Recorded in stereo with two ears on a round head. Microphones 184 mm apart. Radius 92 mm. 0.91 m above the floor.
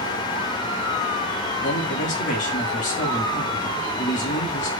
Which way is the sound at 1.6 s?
35° left (ahead or behind).